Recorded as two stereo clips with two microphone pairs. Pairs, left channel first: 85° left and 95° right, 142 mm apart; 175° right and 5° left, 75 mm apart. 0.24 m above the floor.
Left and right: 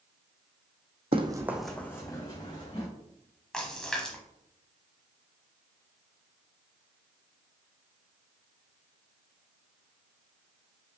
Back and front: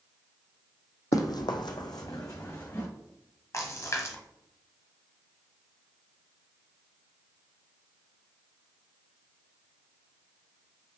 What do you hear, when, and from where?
1.1 s running footsteps: 140° right, 0.6 m; by 2.9 s 135° left, 1.6 m
3.5 s a splash: 165° left, 0.9 m